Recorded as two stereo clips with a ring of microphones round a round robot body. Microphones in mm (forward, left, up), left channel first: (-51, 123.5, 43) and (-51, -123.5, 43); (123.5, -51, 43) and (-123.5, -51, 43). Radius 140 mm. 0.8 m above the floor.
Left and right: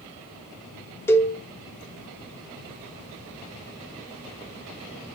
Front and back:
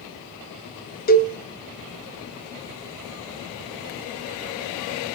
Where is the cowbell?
15° left, 1.2 m.